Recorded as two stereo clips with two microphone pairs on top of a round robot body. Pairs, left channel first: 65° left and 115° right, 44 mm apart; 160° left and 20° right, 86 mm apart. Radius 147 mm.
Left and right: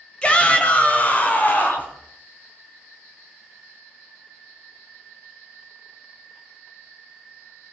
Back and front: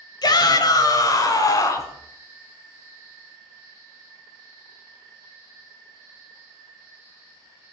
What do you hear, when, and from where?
0.2 s a shout: 125° left, 2.0 m; by 1.9 s 110° left, 2.5 m